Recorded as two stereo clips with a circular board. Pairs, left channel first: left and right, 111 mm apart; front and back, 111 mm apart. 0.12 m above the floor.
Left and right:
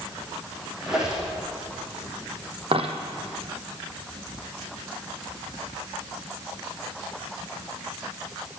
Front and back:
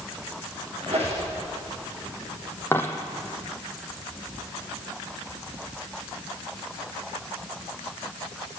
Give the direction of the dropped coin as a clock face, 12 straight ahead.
2 o'clock.